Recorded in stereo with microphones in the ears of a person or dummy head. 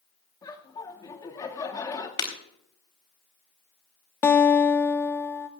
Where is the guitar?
10° left (ahead or behind), 0.5 m.